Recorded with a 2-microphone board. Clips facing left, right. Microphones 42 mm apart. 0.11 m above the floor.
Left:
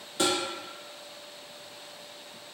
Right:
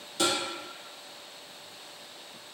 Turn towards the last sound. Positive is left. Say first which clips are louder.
# left 1 dB
turn(degrees=20)  # may be behind; listen again after turning